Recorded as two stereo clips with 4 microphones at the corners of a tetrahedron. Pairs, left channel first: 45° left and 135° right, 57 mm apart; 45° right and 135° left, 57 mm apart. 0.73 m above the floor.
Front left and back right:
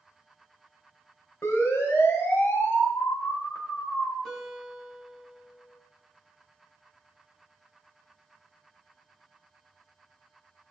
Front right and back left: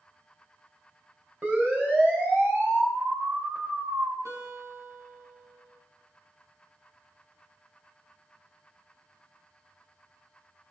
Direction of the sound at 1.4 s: 80° left.